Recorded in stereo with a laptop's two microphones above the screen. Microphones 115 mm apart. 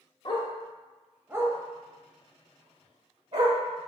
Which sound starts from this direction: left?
A dog barking, at 0.2 s.